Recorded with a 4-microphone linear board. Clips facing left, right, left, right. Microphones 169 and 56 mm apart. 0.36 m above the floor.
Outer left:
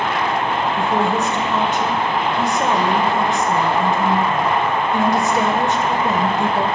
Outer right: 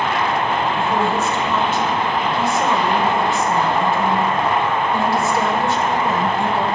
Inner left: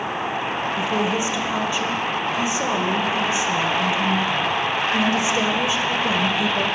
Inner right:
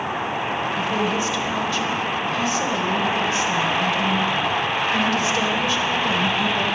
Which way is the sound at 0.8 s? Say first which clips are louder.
Outer left 1 dB, inner left 1 dB; 20° left (ahead or behind).